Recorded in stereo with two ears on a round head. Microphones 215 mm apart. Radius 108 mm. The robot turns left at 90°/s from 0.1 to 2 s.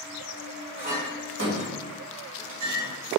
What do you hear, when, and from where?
0.8 s a clink: 25° right (ahead or behind), 1.5 m; by 2.9 s 30° right (ahead or behind), 1.5 m